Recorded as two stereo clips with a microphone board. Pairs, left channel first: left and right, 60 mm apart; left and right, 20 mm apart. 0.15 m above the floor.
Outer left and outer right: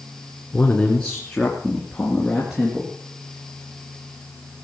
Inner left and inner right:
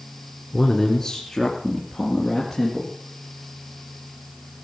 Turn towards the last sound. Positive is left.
turn(degrees=-10)  # may be behind; listen again after turning